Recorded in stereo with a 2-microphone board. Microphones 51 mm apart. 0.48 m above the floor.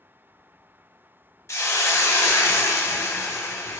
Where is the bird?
I don't hear a bird.